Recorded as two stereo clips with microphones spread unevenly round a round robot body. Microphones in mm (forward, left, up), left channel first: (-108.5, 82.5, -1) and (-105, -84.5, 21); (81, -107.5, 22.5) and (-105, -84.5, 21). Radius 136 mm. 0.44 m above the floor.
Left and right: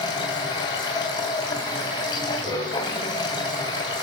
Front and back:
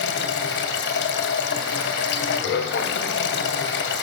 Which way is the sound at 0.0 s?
20° left.